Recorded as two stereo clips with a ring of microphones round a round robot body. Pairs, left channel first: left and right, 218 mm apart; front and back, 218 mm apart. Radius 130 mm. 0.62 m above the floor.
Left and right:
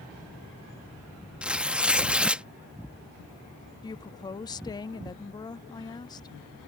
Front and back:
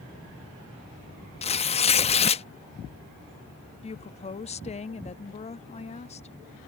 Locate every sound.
1.4 s tearing paper: 10° right
3.8 s a woman speaking: 35° left